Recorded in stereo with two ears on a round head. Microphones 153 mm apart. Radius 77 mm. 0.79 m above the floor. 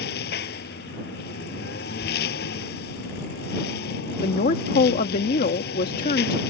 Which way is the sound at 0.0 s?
60° left (ahead or behind).